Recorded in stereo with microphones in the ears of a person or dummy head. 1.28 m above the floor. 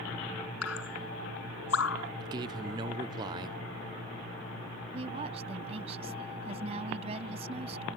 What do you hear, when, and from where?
0.6 s dripping: 90° left
2.2 s a man speaking: 15° right (ahead or behind)
4.9 s a woman speaking: 30° right (ahead or behind)